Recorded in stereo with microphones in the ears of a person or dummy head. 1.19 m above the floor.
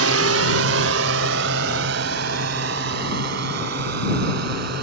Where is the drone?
80° right; by 4.8 s 60° right (ahead or behind).